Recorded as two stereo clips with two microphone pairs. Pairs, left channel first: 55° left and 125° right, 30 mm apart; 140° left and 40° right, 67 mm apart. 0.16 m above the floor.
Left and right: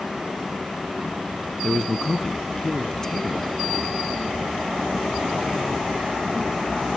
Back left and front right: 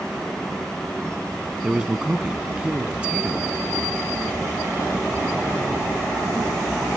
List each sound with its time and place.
1.6 s a man speaking: 10° left, 1.2 m